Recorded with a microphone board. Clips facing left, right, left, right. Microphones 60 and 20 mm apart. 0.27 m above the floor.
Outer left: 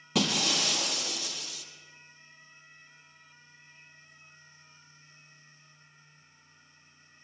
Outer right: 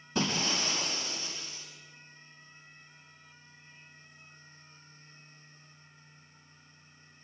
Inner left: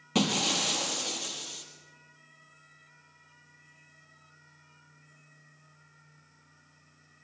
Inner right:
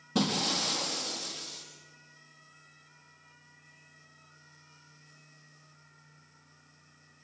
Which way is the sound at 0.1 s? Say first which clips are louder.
Outer left 2 dB, inner left 2 dB; 80° left.